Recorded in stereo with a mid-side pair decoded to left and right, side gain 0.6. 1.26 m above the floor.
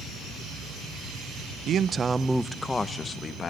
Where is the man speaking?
50° right, 1.0 m; by 3.5 s 35° left, 2.0 m.